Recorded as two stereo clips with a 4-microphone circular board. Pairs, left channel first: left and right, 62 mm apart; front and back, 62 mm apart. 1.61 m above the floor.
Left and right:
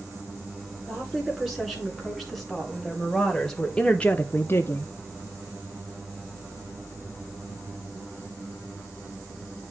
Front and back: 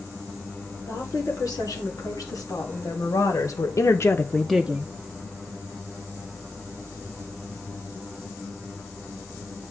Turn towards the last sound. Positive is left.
turn(degrees=135)